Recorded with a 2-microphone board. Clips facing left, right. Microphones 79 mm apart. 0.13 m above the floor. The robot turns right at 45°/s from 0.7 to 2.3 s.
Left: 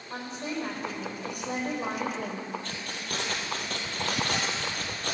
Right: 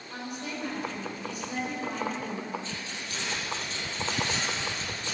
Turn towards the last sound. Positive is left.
turn(degrees=60)  # may be behind; listen again after turning